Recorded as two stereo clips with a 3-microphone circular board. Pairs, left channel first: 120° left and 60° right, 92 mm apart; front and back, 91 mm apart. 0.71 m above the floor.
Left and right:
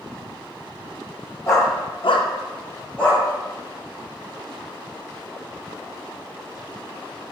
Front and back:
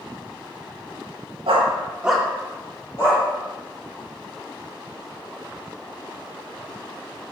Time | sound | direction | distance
1.5 | a dog barking | 175° left | 0.9 m